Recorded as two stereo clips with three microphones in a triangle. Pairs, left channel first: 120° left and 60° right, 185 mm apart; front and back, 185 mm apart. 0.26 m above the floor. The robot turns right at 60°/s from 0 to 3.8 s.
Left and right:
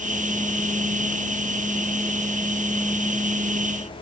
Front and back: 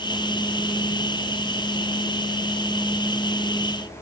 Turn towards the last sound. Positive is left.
No sound to turn to.